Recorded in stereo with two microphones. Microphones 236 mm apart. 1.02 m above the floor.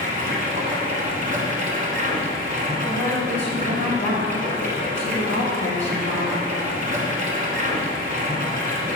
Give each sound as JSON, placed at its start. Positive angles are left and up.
{"t": 0.0, "sound": "running water", "side_deg": -35, "distance_m": 1.2}
{"t": 2.9, "sound": "a woman speaking", "side_deg": 55, "distance_m": 1.4}